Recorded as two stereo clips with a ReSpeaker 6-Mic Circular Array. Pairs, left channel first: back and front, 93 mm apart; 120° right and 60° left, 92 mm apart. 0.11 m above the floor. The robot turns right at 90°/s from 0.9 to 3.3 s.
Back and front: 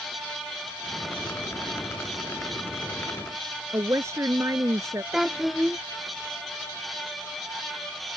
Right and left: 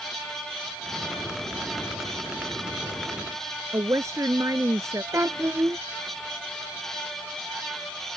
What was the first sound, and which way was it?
A woman speaking, 30° left.